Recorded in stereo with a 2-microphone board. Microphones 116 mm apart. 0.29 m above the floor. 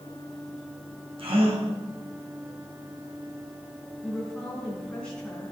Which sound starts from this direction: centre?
A woman speaking, at 4.0 s.